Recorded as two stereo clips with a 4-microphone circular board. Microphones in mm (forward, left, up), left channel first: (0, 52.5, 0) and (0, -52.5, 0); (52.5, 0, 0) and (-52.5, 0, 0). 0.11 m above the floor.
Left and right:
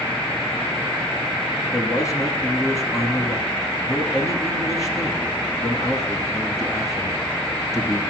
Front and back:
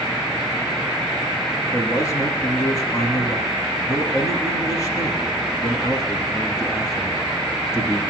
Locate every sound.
1.7 s a man speaking: 45° left, 2 m